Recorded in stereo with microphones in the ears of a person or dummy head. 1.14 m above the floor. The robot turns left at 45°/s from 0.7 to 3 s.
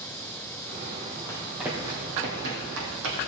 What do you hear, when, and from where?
1.3 s running footsteps: 20° left (ahead or behind), 2.5 m; by 3.2 s 70° right (ahead or behind), 3.5 m